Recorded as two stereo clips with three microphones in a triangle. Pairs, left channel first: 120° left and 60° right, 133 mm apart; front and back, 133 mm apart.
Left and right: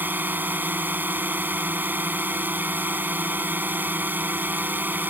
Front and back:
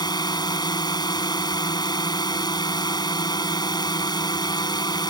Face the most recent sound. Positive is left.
turn(degrees=5)